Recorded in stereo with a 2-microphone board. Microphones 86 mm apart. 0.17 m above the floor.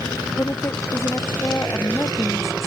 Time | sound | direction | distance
0.4 | a woman speaking | 30° left (ahead or behind) | ?